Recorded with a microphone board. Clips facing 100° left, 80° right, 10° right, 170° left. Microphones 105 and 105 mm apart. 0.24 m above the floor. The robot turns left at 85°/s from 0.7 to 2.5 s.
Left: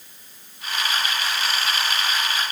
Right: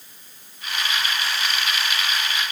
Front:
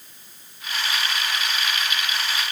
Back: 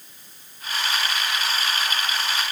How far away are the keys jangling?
I don't hear keys jangling.